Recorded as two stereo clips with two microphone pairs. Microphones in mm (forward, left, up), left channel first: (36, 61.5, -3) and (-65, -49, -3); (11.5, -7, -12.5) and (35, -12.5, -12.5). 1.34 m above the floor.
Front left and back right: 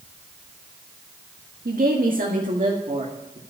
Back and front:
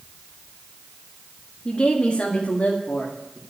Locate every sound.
1.6 s a woman speaking: 145° right, 1.7 m; by 3.4 s 175° right, 2.5 m